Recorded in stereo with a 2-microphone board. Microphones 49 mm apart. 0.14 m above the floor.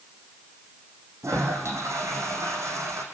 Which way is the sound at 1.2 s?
80° right.